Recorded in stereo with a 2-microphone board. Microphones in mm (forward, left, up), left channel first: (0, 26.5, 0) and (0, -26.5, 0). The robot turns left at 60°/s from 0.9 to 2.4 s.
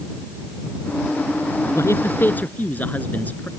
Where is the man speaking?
75° left; by 3.5 s 35° left.